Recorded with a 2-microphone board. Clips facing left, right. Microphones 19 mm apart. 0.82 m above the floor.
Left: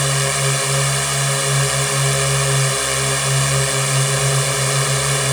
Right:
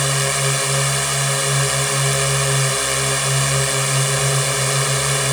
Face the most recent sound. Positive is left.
turn(degrees=0)  # may be behind; listen again after turning